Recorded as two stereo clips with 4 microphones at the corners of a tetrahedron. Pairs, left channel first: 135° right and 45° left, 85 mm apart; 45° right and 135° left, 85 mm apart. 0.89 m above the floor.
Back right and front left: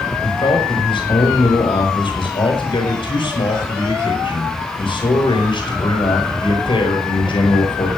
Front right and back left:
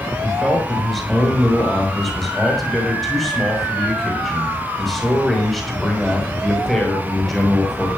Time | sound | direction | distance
0.2 | a man speaking | 135° right | 6 m